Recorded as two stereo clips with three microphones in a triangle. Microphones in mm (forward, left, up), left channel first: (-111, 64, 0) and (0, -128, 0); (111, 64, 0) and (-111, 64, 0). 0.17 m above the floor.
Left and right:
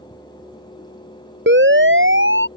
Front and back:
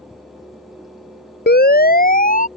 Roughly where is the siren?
Ahead right.